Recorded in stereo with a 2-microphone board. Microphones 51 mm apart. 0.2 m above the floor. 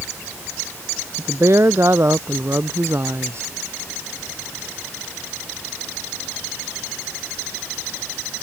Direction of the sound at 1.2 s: 55° right (ahead or behind).